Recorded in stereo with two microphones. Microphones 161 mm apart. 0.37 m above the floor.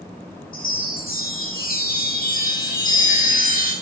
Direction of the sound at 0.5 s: 65° left (ahead or behind).